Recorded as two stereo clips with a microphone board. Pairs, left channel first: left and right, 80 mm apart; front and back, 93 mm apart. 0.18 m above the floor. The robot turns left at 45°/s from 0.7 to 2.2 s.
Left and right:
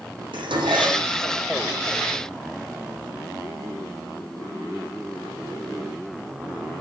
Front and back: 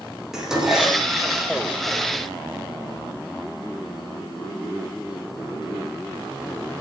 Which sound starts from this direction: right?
Dishes clattering, at 0.3 s.